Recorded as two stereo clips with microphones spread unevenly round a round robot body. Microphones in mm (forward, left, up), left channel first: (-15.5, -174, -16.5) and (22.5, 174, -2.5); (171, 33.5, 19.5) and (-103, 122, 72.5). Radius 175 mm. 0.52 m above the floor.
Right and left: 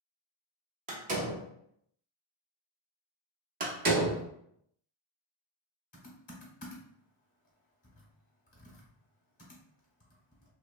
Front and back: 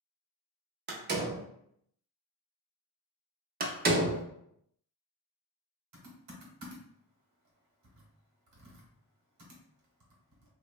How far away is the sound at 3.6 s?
About 0.5 m.